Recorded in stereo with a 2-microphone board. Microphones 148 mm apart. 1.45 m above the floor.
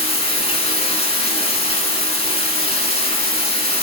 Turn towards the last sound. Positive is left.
turn(degrees=45)  # may be behind; listen again after turning